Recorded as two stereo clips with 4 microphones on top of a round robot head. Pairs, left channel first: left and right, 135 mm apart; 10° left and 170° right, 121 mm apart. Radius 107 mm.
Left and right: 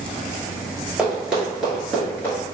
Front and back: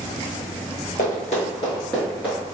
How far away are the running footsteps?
About 1.5 m.